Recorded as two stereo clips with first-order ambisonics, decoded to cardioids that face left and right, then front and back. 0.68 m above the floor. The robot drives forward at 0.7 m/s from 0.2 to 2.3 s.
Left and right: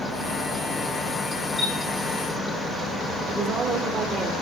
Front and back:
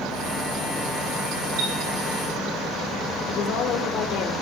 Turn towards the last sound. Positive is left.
turn(degrees=-25)